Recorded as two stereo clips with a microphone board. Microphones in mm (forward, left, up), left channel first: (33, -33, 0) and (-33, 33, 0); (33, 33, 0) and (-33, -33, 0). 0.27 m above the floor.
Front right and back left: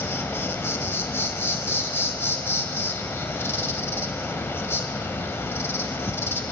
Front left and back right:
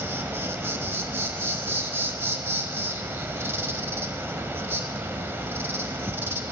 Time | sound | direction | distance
0.0 | an insect | 90° right | 0.8 m